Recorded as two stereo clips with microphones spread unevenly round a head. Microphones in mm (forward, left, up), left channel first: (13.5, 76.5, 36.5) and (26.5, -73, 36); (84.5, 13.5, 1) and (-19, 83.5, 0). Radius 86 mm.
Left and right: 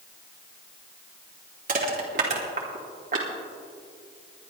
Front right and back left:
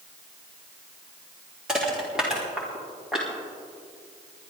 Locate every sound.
1.7 s crushing: 125° right, 2 m